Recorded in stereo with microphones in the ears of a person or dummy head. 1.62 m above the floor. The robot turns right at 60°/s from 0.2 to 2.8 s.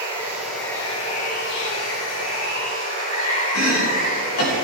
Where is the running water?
15° right, 3.5 m; by 4.7 s 140° left, 3.5 m.